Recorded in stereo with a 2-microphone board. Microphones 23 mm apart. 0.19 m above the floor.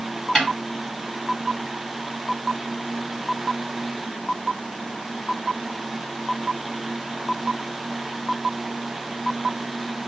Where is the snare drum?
35° left (ahead or behind), 1.9 m.